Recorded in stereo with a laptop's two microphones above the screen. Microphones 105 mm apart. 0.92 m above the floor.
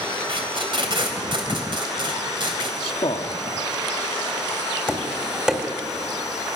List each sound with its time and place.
0.3 s tape being pulled: 55° right (ahead or behind), 3 m
2.8 s a man speaking: 55° left (ahead or behind), 1.6 m
4.9 s tapping: 10° right (ahead or behind), 1.3 m